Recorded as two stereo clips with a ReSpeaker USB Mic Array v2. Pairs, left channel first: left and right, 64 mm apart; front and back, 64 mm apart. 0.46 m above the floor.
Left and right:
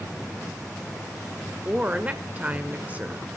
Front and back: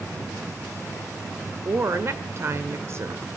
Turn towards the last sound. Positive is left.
turn(degrees=-150)